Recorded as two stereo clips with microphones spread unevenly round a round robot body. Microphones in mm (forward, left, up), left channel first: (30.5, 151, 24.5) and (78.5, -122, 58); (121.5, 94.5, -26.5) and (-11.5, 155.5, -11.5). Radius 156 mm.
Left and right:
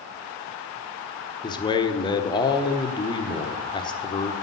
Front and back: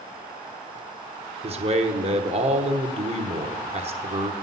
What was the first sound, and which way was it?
A man speaking, 155° left.